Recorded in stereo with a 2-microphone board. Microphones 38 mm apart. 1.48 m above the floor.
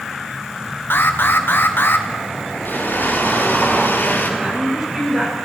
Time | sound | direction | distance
0.9 | an alarm | 55° left (ahead or behind) | 1.7 m
2.6 | a blender | 50° left (ahead or behind) | 4 m
4.4 | a woman speaking | 20° right (ahead or behind) | 6.5 m